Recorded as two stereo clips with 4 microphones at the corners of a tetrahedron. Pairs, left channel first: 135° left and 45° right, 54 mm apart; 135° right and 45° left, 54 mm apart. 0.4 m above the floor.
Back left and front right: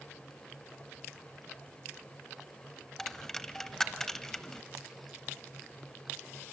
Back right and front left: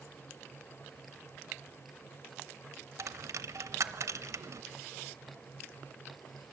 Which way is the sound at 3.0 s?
55° left.